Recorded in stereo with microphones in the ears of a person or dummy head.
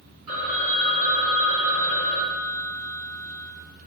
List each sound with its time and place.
0.3 s a phone ringing: 70° right (ahead or behind), 2.5 m